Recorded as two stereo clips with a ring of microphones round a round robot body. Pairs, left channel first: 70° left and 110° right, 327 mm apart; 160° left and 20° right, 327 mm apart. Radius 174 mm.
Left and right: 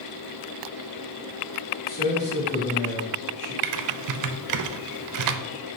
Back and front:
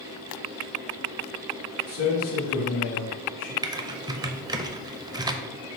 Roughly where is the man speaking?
Behind left.